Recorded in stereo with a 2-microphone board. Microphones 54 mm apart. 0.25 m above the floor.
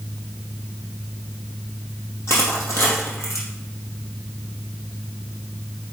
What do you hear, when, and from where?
2.3 s crushing: 55° left (ahead or behind), 3 m